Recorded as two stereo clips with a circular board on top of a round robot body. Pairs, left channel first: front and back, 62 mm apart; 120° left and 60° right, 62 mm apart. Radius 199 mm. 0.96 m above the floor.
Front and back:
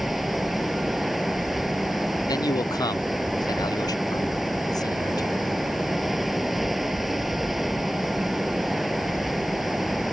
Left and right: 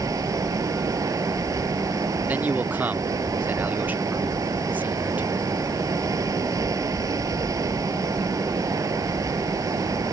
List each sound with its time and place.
0.0 s running water: 90° right
2.3 s a man speaking: 5° left